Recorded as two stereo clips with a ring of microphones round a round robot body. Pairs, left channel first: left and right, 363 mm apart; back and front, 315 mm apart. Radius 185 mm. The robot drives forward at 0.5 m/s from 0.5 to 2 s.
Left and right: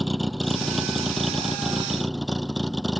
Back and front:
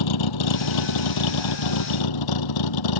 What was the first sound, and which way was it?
A vehicle, straight behind.